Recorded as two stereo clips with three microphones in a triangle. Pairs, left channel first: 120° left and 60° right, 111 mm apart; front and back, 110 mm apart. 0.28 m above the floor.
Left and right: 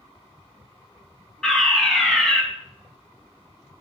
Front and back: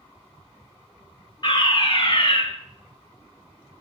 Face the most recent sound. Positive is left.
turn(degrees=35)